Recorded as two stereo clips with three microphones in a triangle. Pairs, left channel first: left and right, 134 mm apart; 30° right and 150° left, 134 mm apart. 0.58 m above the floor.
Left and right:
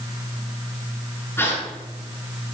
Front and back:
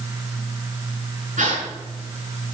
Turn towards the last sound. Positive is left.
turn(degrees=160)